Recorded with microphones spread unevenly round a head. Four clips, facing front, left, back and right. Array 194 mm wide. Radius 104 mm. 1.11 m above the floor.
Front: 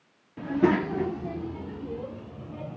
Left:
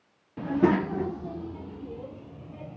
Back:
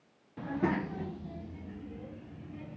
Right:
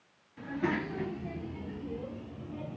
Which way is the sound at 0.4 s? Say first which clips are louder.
Left 9 dB, front 9 dB; 75° left.